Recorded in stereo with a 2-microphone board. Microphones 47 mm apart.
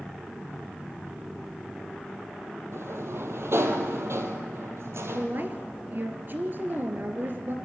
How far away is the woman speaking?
About 2.5 m.